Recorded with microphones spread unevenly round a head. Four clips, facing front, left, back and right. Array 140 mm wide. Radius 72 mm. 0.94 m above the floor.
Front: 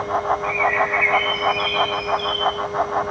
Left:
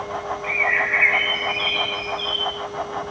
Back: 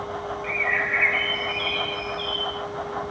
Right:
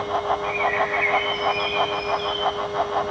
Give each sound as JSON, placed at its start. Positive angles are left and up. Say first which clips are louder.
{"t": 0.4, "sound": "a bird", "louder": "right 2 dB, front 7 dB", "azimuth_deg": 165, "distance_m": 0.7}